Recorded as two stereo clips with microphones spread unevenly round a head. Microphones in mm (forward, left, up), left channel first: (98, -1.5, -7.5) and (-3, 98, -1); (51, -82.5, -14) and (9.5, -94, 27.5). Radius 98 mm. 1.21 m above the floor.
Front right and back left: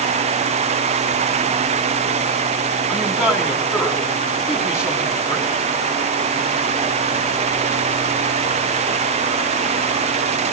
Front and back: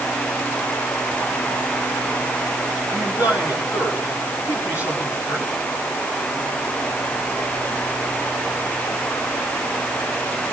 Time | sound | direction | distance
2.9 | a man speaking | 50° left | 9 m